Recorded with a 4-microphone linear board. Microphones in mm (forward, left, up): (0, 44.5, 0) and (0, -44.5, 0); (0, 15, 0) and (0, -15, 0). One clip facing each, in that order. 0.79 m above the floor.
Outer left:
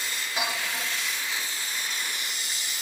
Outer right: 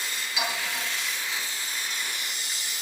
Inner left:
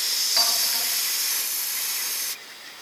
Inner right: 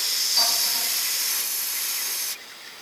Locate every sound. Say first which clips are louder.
0.4 s a clink: even, even; 45° left (ahead or behind), 10 m